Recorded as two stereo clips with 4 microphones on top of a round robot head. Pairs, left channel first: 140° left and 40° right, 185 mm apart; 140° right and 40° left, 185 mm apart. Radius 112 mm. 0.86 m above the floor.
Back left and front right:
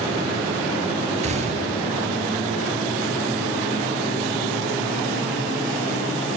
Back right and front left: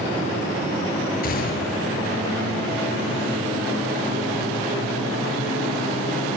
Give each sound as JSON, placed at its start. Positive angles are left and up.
{"t": 1.2, "sound": "a gunshot", "azimuth_deg": -95, "distance_m": 8.0}